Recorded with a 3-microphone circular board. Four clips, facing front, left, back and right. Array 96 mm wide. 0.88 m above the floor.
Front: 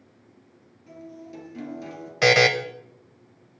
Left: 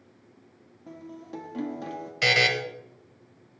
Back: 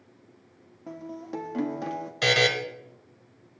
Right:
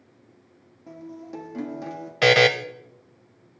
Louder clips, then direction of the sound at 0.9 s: Right 3 dB, back 5 dB; straight behind.